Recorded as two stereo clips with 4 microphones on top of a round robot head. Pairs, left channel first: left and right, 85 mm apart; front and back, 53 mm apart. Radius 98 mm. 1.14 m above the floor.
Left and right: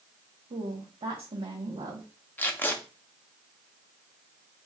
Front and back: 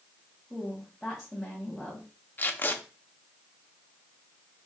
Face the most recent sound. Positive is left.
turn(degrees=30)